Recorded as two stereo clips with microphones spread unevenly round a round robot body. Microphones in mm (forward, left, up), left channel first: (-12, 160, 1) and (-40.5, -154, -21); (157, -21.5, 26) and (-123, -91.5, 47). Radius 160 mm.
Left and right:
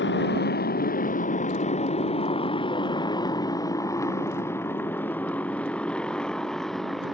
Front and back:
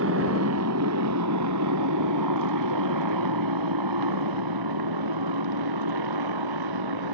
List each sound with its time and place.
0.0 s a motorcycle: 140° left; by 7.2 s 175° left